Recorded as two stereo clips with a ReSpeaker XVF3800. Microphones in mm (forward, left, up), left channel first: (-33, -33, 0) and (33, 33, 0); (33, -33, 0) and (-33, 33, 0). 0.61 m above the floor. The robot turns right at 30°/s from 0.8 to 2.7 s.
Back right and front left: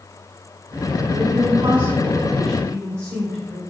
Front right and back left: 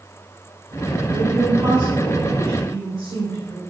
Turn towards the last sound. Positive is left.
turn(degrees=110)